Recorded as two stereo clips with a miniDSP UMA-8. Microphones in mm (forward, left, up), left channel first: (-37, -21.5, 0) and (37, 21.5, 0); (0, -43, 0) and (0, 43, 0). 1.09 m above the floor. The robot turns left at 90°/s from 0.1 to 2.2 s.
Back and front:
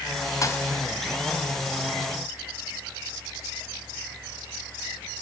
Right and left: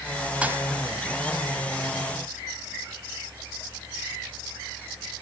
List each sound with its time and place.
0.4 s a thud: 165° left, 1.7 m; by 0.7 s 140° left, 1.7 m